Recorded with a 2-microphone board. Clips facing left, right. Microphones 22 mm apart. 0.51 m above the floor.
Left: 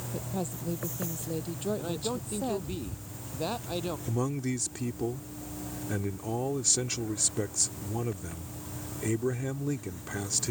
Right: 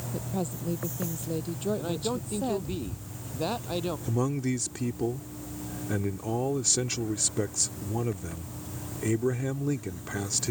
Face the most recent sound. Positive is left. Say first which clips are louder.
# right 3 dB
turn(degrees=-10)  # may be behind; listen again after turning